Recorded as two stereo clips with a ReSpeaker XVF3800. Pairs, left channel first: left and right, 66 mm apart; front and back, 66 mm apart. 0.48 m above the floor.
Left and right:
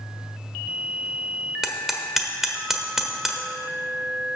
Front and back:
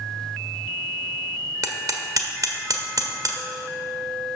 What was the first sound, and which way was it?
Hammering, 175° right.